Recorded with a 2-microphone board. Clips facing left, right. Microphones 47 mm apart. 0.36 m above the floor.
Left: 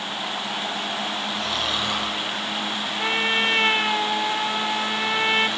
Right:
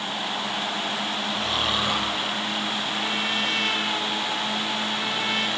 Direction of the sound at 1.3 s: 20° right (ahead or behind).